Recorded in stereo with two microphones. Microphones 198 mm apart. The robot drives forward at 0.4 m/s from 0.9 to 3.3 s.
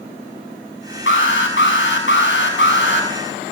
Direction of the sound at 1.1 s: 80° left.